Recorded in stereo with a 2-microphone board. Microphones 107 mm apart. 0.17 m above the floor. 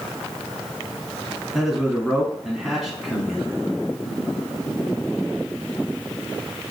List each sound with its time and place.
1.5 s a man speaking: 5° right (ahead or behind), 1.1 m